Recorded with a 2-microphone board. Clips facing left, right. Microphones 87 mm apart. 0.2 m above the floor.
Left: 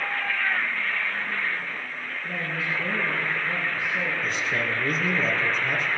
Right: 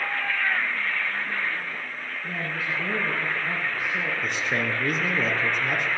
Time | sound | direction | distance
2.2 | a woman speaking | 70° right (ahead or behind) | 5.5 m
4.2 | a man speaking | 65° right (ahead or behind) | 3.5 m